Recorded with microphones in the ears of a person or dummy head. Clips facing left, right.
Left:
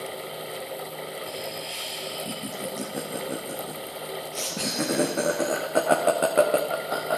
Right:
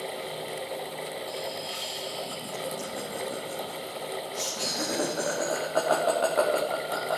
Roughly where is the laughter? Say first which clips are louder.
Even; left.